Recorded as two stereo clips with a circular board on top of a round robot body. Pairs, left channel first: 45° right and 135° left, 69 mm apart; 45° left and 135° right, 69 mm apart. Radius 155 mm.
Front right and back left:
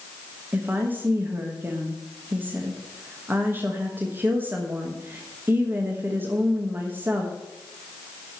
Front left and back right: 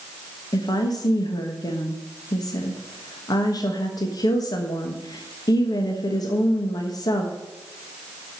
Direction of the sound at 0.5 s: 75° left.